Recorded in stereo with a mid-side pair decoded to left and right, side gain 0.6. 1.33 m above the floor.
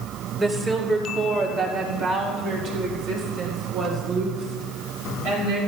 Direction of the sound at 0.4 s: 25° right.